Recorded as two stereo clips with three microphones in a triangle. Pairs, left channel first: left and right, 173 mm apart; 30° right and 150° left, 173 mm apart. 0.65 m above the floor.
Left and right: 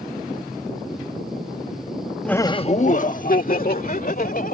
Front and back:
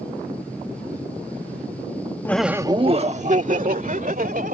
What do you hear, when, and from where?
2.2 s laughter: 15° left; by 4.5 s 120° left